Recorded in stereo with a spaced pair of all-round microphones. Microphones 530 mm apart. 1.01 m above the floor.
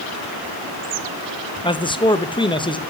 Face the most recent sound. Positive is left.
turn(degrees=10)  # may be behind; listen again after turning